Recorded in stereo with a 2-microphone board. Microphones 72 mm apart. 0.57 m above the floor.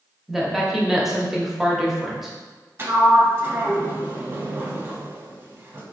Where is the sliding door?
30° right (ahead or behind), 0.6 m.